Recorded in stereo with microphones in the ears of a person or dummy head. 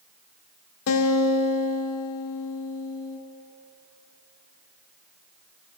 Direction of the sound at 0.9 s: 75° left (ahead or behind).